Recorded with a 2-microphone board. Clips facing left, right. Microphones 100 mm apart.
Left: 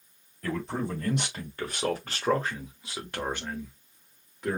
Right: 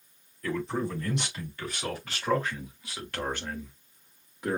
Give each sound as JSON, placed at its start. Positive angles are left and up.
{"t": 0.4, "sound": "a man speaking", "side_deg": 65, "distance_m": 2.5}